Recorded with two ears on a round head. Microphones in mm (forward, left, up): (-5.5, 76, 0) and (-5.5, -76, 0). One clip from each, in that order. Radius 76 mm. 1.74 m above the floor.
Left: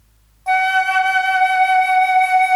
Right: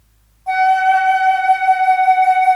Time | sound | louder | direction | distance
0.5 | a flute | right 3 dB | 40° left (ahead or behind) | 0.7 m